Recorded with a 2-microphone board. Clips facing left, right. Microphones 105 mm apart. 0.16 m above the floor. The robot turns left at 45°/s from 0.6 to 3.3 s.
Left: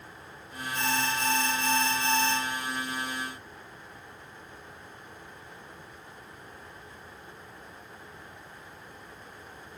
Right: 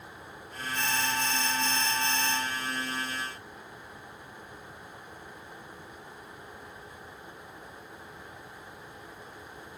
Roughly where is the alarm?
Behind left.